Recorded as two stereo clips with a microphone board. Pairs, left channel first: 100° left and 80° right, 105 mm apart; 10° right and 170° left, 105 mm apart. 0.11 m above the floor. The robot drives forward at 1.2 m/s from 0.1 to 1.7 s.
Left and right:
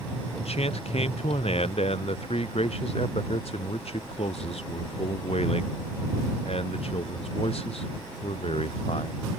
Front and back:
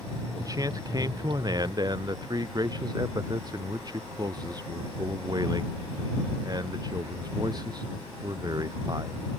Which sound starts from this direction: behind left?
A man speaking, at 0.4 s.